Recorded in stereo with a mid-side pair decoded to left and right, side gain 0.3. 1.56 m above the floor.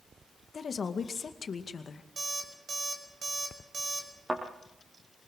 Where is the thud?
30° right, 5.5 m.